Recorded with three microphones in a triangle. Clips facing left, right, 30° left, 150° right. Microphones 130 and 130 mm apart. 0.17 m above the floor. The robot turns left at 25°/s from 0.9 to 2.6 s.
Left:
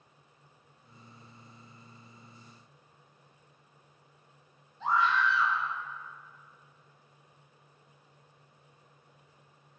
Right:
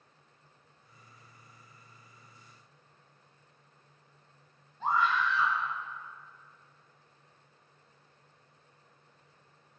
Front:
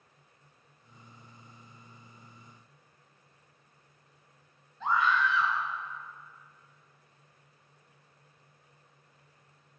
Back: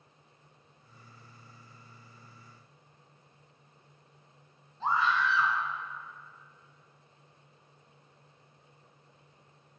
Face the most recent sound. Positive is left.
turn(degrees=-105)